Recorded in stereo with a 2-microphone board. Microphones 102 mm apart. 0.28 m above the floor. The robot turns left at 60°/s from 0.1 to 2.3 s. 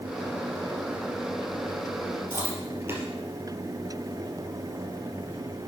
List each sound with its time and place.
2.3 s chewing: 25° right (ahead or behind), 3 m